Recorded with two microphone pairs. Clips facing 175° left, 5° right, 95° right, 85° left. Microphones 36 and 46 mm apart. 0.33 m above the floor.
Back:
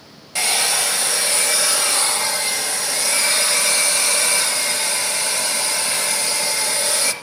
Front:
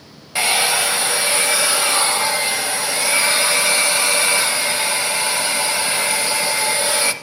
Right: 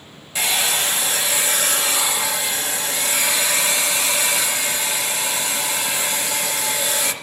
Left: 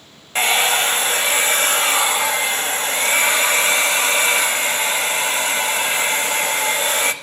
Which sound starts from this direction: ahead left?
A hair dryer, at 0.3 s.